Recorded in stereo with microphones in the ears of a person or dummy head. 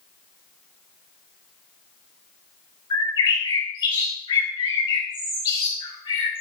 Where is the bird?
20° left (ahead or behind), 4.5 m.